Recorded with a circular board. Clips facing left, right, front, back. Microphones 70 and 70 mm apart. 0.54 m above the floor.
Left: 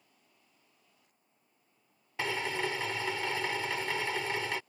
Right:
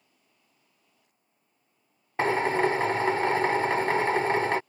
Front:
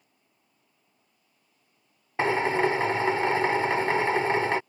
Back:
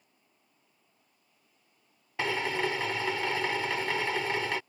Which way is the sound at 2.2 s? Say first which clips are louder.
Right 10 dB, front 7 dB; 50° right.